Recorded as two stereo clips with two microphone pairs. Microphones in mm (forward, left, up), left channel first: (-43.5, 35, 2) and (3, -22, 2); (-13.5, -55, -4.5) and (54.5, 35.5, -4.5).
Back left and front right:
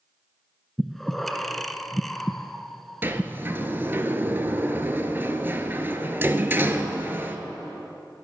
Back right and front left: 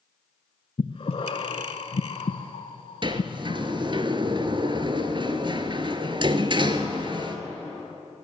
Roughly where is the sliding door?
Ahead.